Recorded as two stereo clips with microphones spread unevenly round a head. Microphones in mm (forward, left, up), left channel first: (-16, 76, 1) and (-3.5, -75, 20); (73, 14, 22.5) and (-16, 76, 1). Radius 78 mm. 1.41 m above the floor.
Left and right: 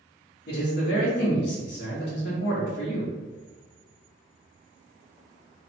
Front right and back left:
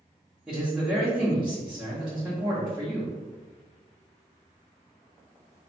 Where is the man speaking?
65° left, 1.1 m.